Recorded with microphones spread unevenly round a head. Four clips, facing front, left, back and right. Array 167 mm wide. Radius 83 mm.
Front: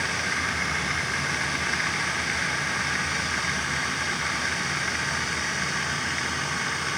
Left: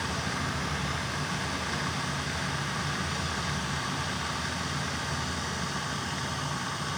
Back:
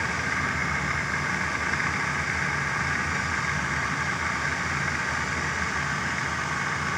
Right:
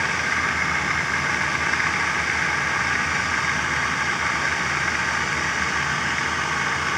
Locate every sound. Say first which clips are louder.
0.0 s running water: right 8 dB, back 1 dB; 75° right